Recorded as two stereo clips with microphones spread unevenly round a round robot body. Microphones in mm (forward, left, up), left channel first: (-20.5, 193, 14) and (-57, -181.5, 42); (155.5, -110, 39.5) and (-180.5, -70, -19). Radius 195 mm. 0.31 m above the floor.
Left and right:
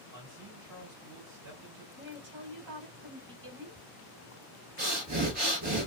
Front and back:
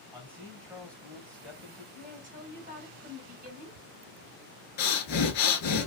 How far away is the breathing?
About 1.0 m.